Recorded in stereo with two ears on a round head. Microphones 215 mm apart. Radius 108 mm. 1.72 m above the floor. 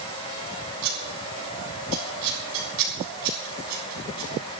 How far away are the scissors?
About 7 m.